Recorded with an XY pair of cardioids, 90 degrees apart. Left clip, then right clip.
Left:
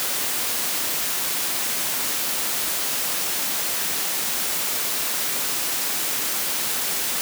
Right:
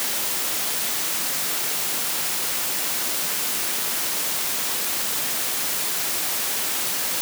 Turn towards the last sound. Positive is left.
No sound to turn to.